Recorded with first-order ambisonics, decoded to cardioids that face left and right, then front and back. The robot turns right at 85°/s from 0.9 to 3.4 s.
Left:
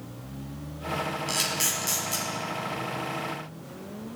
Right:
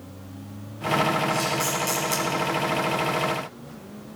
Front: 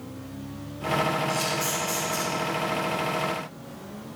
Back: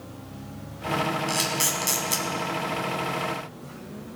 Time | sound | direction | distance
1.3 | a camera shutter | 130° left | 1.9 m